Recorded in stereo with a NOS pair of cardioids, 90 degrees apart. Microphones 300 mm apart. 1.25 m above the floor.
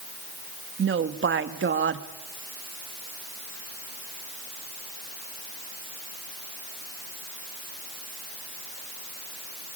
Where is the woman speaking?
40° right, 2.5 m.